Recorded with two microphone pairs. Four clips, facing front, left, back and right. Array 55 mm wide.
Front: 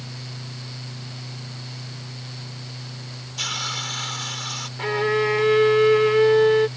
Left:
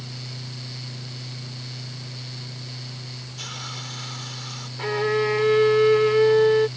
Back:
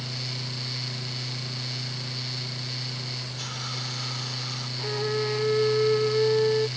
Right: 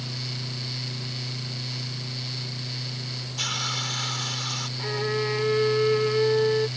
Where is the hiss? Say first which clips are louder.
Right 6 dB, front 10 dB; 30° right.